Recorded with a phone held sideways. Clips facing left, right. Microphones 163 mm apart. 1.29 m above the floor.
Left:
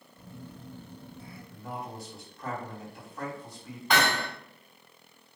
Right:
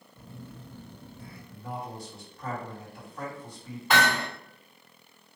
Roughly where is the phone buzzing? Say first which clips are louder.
Even; centre.